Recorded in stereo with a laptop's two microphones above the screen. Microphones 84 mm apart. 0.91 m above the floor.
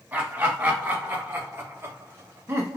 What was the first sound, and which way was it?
Laughter, 20° right (ahead or behind).